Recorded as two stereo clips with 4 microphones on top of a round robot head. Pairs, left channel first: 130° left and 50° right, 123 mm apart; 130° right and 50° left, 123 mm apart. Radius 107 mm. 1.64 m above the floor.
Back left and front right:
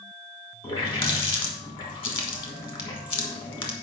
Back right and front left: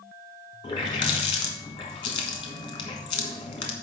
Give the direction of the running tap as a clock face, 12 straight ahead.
6 o'clock.